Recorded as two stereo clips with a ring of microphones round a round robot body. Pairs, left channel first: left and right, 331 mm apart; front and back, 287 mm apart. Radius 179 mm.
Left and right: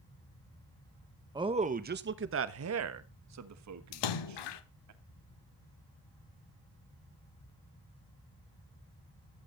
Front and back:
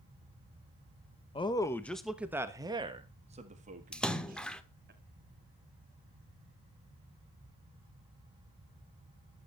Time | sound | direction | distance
1.4 | a man speaking | 35° right | 1.0 m
3.9 | a splash | 85° left | 1.4 m